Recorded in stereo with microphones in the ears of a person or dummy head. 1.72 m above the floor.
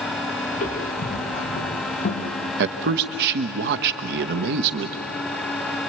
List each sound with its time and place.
0.5 s footsteps: 40° left (ahead or behind), 6 m; by 2.3 s 35° left (ahead or behind), 3.5 m
2.6 s a man speaking: 45° right (ahead or behind), 1.0 m